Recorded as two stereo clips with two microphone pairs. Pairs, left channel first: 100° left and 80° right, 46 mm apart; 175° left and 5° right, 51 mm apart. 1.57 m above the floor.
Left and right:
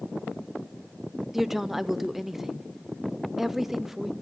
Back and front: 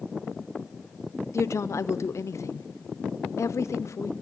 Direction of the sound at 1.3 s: 165° right.